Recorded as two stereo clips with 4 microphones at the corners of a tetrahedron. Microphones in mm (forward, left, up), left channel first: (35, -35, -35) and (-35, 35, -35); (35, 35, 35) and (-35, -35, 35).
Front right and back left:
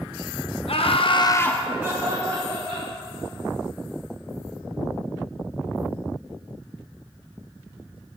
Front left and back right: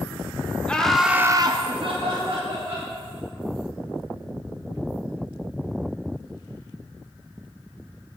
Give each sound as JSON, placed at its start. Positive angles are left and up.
{"t": 0.7, "sound": "laughter", "azimuth_deg": -35, "distance_m": 1.0}